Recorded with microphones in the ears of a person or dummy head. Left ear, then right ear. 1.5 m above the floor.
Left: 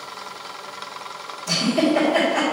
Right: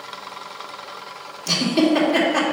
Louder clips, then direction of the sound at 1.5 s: Right 1 dB; 70° right (ahead or behind).